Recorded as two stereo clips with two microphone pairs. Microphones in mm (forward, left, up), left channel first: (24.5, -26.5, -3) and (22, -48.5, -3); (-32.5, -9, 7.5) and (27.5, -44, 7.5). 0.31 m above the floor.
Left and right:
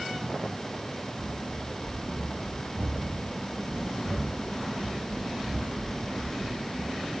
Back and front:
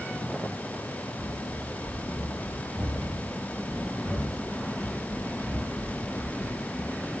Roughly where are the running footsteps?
Right.